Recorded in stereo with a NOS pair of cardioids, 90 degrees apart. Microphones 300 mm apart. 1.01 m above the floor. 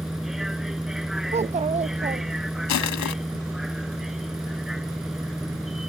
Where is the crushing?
65° left.